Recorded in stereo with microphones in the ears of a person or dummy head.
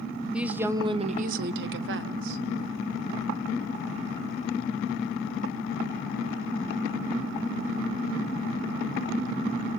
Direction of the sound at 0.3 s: 5° right (ahead or behind).